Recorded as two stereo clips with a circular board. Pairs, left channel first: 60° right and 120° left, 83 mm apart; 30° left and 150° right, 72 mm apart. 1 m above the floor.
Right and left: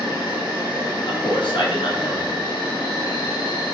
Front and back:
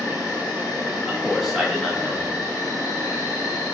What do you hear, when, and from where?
0.0 s an insect: 75° right, 2.0 m
1.1 s a man speaking: 65° right, 0.9 m